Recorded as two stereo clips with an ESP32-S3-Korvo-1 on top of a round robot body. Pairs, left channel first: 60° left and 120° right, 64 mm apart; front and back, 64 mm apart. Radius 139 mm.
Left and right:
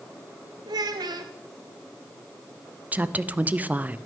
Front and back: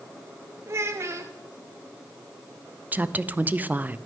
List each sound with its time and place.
0.7 s a child speaking: 130° right, 0.6 m
2.9 s a woman speaking: 150° right, 0.5 m